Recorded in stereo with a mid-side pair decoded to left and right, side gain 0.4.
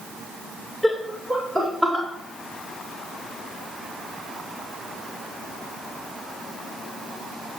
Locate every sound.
0.8 s laughter: 10° right, 2.5 m; by 2.0 s 25° right, 3.5 m